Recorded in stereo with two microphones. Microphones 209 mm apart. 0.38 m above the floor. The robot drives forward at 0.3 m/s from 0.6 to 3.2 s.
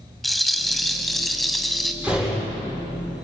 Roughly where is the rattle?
Centre.